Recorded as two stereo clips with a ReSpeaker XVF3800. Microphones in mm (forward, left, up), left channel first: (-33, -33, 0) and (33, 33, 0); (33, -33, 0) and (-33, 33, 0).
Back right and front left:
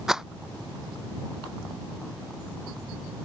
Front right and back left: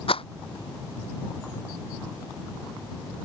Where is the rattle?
40° right.